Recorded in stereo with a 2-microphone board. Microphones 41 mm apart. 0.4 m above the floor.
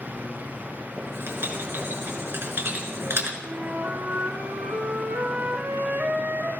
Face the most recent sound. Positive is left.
turn(degrees=-75)  # may be behind; listen again after turning